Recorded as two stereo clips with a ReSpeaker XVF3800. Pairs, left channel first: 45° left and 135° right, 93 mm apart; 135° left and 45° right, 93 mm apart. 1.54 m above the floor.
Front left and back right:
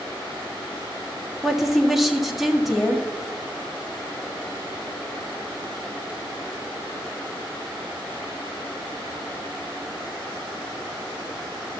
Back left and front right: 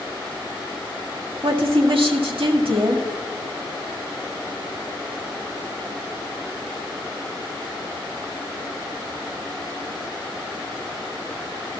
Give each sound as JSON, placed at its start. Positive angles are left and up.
{"t": 1.4, "sound": "a woman speaking", "azimuth_deg": -45, "distance_m": 1.6}